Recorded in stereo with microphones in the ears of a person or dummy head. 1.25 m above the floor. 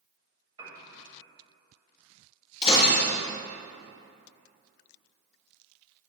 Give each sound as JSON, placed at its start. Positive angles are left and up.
{"t": 0.6, "sound": "a piano", "side_deg": -20, "distance_m": 1.8}
{"t": 2.6, "sound": "breaking glass", "side_deg": 25, "distance_m": 2.5}